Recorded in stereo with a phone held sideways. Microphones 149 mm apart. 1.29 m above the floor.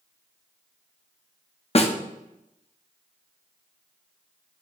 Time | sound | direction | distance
1.8 | a snare drum | 45° left (ahead or behind) | 0.8 m